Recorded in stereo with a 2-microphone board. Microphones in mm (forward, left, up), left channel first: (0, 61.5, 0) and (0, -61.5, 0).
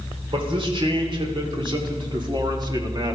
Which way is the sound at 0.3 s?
45° right (ahead or behind).